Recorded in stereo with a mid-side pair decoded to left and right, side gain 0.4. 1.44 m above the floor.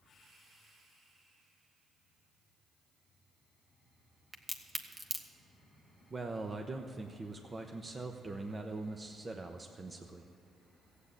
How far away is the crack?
About 1.3 m.